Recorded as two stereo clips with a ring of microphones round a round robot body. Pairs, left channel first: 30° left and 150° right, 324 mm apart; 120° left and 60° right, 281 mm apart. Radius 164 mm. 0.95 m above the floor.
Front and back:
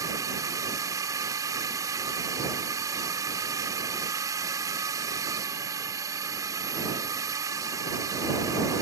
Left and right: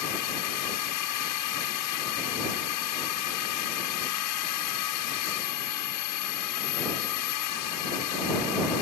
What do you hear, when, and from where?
0.0 s a drone: 130° left